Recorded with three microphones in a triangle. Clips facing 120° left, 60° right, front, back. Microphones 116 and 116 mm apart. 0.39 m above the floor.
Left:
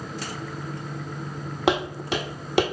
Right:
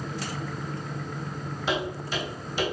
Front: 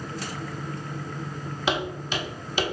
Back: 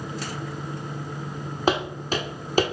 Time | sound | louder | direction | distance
1.7 | footsteps | left 6 dB, back 4 dB | 135° left | 1.0 m